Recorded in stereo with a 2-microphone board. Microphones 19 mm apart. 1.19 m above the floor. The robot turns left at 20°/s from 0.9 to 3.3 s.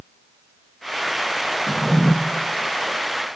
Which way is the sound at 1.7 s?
25° left (ahead or behind).